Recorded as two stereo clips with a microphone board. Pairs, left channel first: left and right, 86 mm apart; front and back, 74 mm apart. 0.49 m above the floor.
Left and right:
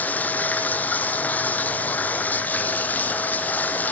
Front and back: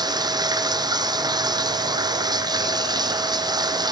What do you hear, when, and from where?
0.0 s running water: 160° left, 1.5 m